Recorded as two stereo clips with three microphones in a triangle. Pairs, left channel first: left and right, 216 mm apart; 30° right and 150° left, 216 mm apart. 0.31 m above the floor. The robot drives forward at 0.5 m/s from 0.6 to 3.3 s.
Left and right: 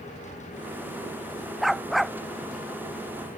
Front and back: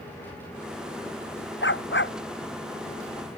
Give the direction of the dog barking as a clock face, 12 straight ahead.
12 o'clock.